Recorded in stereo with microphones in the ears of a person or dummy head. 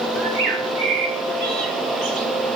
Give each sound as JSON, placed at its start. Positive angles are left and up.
{"t": 0.2, "sound": "a bird", "side_deg": -55, "distance_m": 1.2}